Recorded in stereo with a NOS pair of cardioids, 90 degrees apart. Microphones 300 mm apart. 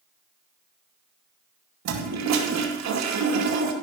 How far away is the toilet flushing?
About 2.5 m.